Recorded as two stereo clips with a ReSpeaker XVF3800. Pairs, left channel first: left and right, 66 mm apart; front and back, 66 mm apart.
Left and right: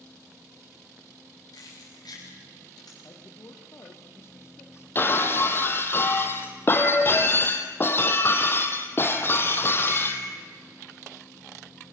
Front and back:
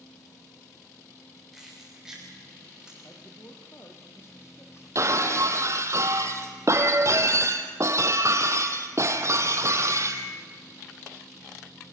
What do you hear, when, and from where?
1.5 s keys jangling: 90° left, 9.5 m; by 2.9 s 100° left, 11 m
3.0 s a man speaking: 45° left, 4.5 m
5.0 s breaking glass: 140° left, 2 m